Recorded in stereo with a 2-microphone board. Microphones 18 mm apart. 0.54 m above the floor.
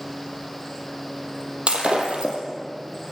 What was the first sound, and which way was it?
Breaking glass, 80° right.